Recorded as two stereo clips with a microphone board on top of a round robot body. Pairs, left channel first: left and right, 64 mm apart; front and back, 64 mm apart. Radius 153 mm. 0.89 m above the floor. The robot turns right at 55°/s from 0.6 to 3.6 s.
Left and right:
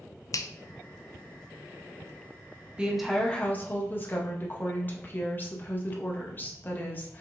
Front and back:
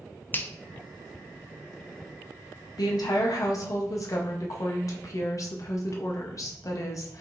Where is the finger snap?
60° left, 0.5 m.